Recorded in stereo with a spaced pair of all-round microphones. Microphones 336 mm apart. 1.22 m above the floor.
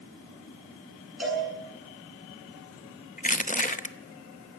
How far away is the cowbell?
About 8.5 m.